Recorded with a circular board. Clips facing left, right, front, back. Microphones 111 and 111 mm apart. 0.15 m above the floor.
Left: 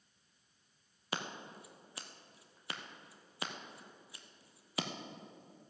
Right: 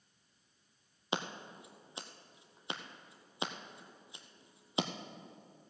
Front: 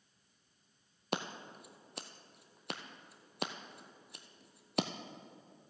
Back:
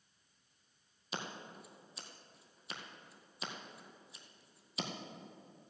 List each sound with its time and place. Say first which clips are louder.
1.1 s scissors: right 3 dB, front 5 dB; 20° right, 0.9 m